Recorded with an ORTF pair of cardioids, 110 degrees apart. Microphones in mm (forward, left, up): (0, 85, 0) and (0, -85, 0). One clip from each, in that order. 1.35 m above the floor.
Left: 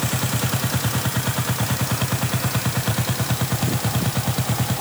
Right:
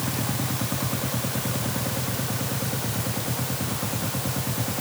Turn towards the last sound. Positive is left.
No sound to turn to.